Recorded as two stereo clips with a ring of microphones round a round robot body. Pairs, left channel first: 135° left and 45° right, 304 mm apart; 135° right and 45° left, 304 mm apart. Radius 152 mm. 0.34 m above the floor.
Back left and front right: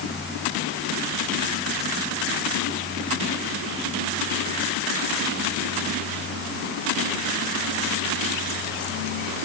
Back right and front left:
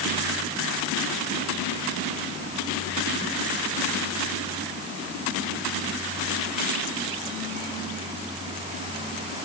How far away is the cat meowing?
I don't hear a cat meowing.